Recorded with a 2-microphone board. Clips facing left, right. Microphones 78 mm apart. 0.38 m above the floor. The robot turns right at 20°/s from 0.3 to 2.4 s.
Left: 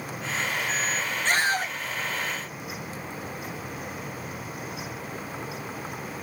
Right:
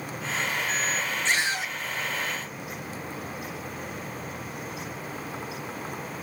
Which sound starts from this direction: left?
A scream, at 1.2 s.